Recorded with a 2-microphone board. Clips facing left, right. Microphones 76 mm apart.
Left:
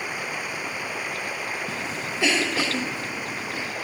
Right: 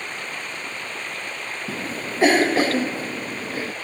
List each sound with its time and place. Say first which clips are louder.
0.0 s running water: left 2 dB; 10° left (ahead or behind)
1.7 s a cough: right 1 dB; 45° right (ahead or behind)